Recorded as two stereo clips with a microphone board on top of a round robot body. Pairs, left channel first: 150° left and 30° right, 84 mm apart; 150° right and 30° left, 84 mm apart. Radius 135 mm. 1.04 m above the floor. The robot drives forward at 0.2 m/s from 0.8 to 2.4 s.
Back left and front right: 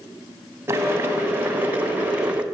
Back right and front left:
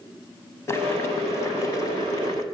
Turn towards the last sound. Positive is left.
turn(degrees=-110)